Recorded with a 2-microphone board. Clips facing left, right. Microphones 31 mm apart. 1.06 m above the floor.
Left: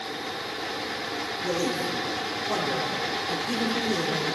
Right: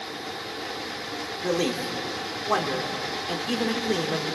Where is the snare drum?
I don't hear a snare drum.